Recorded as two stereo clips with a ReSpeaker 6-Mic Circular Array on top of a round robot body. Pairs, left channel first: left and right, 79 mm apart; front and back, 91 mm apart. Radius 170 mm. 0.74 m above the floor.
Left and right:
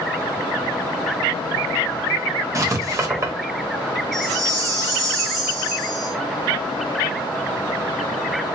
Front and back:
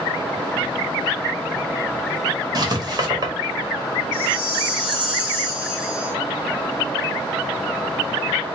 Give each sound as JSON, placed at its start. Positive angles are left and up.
{"t": 2.5, "sound": "writing", "azimuth_deg": -135, "distance_m": 1.5}
{"t": 4.1, "sound": "a chime", "azimuth_deg": -135, "distance_m": 1.6}